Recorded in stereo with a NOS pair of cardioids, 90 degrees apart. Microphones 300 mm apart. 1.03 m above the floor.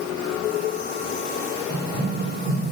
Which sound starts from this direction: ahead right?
Running footsteps, at 1.7 s.